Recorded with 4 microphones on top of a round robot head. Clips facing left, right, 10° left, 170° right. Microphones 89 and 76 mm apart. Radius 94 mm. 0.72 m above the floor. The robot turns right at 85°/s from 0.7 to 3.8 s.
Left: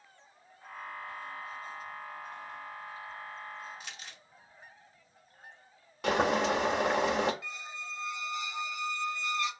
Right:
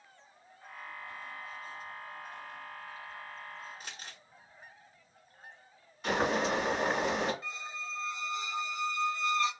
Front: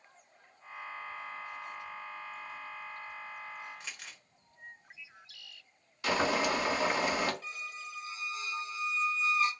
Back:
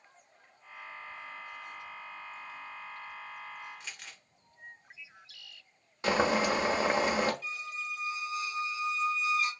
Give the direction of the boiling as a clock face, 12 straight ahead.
8 o'clock.